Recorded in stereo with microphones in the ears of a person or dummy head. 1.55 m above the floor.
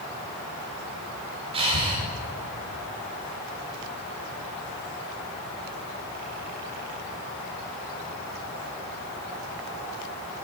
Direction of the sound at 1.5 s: 30° right (ahead or behind).